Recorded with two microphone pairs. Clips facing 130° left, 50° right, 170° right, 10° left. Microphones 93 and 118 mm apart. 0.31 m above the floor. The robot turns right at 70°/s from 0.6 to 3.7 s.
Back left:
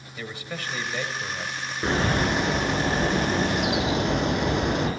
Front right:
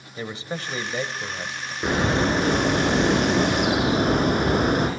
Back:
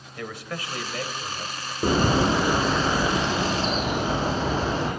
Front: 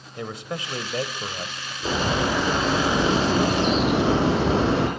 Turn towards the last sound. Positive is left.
turn(degrees=-10)